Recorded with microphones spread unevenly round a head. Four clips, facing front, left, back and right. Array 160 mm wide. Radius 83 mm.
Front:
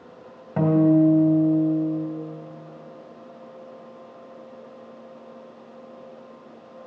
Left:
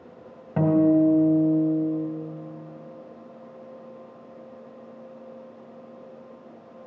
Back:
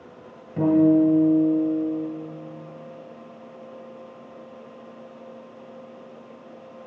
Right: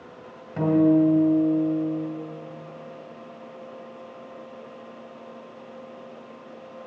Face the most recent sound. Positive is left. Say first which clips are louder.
# even, even
turn(degrees=40)